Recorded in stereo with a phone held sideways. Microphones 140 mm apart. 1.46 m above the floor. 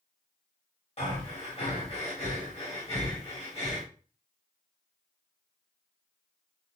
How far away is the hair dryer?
I don't hear a hair dryer.